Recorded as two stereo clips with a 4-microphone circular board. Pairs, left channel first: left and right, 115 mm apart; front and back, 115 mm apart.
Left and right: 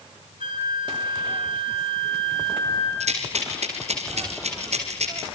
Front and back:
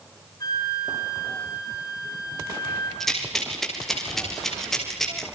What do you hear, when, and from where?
0.4 s a flute: 55° right, 5.5 m
3.0 s a rattle: 85° right, 6 m